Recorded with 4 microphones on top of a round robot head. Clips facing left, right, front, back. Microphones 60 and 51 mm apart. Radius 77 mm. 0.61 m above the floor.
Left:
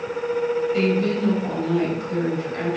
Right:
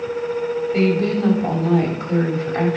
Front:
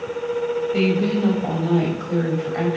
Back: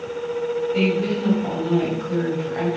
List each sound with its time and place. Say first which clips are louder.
0.7 s a woman speaking: right 2 dB, front 2 dB; 40° right, 4 m